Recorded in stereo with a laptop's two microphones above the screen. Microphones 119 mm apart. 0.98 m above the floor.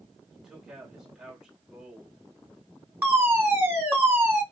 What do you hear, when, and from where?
0.3 s a man speaking: 5° right (ahead or behind), 2.5 m
3.0 s a fire alarm: 20° right (ahead or behind), 2.5 m